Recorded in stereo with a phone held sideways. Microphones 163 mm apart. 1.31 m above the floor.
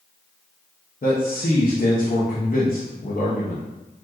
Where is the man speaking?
55° left (ahead or behind), 0.8 m.